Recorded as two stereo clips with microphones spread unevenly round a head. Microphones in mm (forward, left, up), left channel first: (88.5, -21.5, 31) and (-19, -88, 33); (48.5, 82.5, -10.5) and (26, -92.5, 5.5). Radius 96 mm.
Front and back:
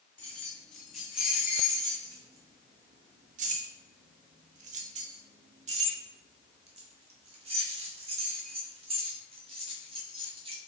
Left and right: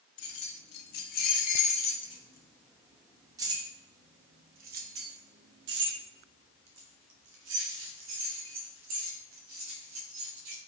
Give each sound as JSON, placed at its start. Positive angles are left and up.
{"t": 0.2, "sound": "keys jangling", "azimuth_deg": 115, "distance_m": 1.6}